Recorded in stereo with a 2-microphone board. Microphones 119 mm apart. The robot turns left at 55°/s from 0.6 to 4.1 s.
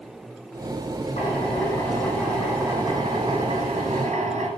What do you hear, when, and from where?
1.2 s a drill: 70° left, 8 m; by 4.5 s 90° right, 8 m